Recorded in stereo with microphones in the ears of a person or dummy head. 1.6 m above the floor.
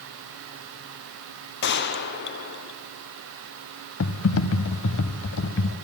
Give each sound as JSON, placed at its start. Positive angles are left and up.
{"t": 1.6, "sound": "a gunshot", "side_deg": 55, "distance_m": 1.1}
{"t": 4.0, "sound": "typing on a keyboard", "side_deg": 65, "distance_m": 1.0}